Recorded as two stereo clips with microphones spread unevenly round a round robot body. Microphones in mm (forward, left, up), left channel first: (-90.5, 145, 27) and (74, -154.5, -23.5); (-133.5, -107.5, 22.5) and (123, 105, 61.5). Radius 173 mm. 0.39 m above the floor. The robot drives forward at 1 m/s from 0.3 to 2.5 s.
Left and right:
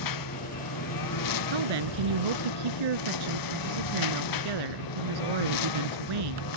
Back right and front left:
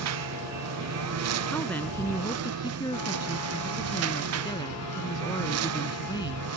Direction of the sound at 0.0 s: 85° left.